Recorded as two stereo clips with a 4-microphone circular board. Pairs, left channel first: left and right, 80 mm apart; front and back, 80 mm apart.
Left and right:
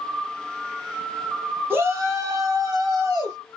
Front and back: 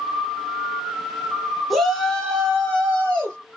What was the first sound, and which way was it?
A shout, 90° right.